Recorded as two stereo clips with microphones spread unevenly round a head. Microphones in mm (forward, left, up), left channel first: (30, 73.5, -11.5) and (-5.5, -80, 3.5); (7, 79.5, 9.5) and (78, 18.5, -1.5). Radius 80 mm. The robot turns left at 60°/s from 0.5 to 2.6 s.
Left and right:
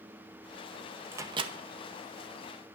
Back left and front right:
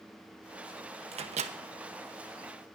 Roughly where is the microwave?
Ahead right.